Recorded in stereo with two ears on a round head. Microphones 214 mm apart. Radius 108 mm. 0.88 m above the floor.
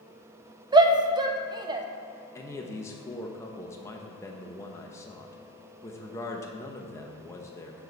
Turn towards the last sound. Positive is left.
turn(degrees=10)  # may be behind; listen again after turning